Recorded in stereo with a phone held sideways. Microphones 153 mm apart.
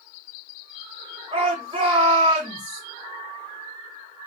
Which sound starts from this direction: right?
A shout, at 1.3 s.